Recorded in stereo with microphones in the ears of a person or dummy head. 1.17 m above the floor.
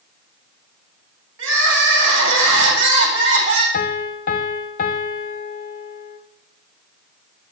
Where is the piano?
40° left (ahead or behind), 0.7 m.